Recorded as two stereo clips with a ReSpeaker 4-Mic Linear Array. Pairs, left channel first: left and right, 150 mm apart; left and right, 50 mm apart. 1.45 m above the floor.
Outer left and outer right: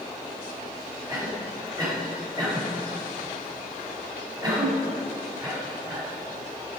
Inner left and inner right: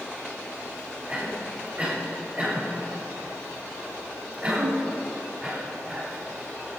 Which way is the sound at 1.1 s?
25° right (ahead or behind).